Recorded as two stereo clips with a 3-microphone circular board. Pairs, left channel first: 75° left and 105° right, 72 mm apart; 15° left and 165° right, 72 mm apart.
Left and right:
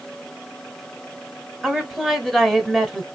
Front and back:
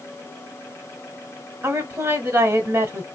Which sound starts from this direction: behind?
A woman speaking, at 1.6 s.